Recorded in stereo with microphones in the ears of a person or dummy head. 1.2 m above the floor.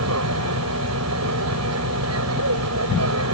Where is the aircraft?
80° right.